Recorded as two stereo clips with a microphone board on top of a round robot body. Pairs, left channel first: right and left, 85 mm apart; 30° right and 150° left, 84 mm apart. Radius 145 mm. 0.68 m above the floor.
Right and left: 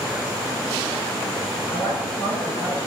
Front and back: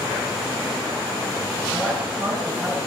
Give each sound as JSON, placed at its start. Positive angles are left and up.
{"t": 1.7, "sound": "a woman speaking", "azimuth_deg": -110, "distance_m": 7.0}